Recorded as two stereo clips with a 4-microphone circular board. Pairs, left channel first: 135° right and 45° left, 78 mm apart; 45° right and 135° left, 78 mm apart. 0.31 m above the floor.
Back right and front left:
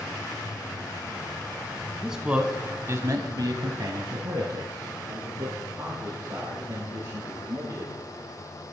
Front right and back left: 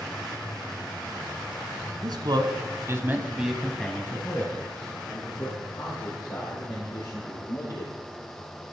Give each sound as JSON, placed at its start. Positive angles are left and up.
{"t": 2.0, "sound": "a man speaking", "azimuth_deg": 130, "distance_m": 2.0}